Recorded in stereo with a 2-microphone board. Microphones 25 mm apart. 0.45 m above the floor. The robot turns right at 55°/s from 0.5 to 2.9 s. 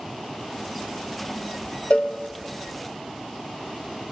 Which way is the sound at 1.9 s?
55° left (ahead or behind).